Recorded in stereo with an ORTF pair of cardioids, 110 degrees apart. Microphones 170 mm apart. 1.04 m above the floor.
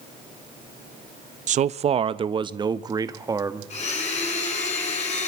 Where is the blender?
40° left, 5 m.